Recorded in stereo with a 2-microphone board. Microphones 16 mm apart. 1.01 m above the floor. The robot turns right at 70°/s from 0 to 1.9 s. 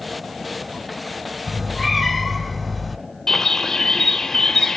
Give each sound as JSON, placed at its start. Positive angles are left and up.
{"t": 1.5, "sound": "a cat meowing", "azimuth_deg": -40, "distance_m": 1.5}
{"t": 3.3, "sound": "a bird", "side_deg": 30, "distance_m": 0.7}